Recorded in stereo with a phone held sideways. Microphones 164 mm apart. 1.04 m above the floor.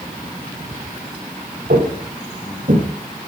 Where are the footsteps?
65° right (ahead or behind), 3.5 m; by 2.8 s 60° right (ahead or behind), 3.5 m.